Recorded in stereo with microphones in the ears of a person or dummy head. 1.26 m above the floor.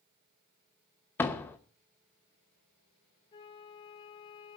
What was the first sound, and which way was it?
A door slam, 15° left (ahead or behind).